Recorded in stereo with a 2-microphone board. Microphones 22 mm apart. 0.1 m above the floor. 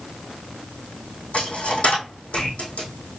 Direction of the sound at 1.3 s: 75° left (ahead or behind).